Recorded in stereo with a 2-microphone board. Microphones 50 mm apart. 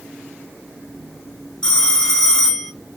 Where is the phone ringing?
15° left (ahead or behind), 1.1 m.